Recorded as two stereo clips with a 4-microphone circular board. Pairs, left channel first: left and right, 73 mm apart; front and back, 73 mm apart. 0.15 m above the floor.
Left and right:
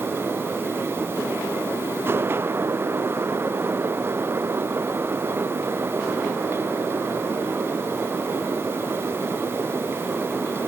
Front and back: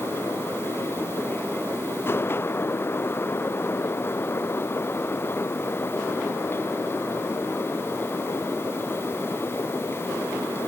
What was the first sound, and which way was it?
Only background noise.